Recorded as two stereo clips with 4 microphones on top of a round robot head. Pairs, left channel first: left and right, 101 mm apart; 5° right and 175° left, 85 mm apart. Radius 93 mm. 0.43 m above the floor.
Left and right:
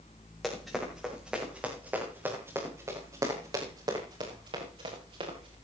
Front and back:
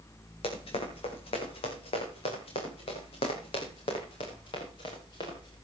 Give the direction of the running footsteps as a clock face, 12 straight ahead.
12 o'clock.